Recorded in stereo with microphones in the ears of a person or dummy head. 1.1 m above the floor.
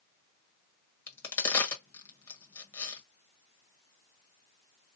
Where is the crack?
15° left (ahead or behind), 1.2 m.